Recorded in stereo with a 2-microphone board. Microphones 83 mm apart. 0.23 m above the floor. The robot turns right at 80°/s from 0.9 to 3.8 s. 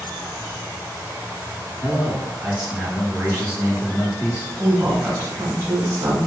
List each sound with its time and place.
1.8 s a man speaking: 70° right, 1.7 m; by 4.5 s 90° left, 1.7 m
4.6 s a woman speaking: 25° right (ahead or behind), 1.2 m